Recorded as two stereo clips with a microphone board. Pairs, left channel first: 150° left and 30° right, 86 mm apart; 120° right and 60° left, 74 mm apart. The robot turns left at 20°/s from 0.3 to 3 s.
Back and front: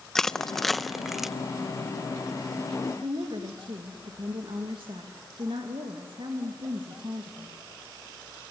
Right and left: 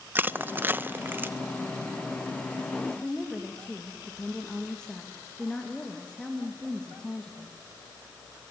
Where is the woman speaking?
40° right, 2.5 m.